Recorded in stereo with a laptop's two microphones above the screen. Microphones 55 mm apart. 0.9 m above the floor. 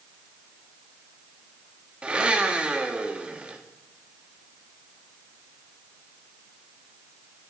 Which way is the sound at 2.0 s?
20° right (ahead or behind).